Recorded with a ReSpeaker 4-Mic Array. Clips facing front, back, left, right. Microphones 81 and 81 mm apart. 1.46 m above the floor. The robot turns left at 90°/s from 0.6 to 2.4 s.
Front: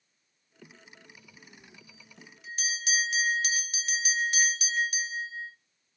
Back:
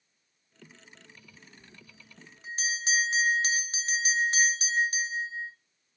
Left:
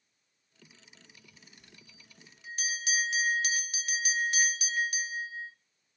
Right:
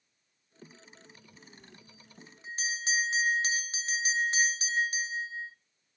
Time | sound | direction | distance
1.6 | a bell | 65° right | 0.8 m